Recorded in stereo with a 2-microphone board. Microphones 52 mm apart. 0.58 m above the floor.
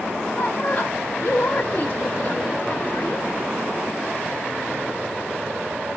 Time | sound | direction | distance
0.3 | a woman speaking | 40° left (ahead or behind) | 0.8 m